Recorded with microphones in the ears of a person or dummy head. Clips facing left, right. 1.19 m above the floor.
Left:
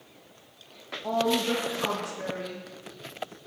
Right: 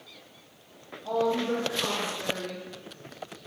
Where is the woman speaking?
70° left (ahead or behind), 1.3 m; by 2.6 s 60° left (ahead or behind), 2.5 m.